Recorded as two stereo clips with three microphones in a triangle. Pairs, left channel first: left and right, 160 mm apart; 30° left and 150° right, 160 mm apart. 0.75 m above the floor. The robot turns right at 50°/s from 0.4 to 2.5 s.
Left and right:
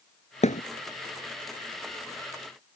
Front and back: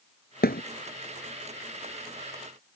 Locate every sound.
0.4 s a thud: 45° left; by 0.6 s 55° left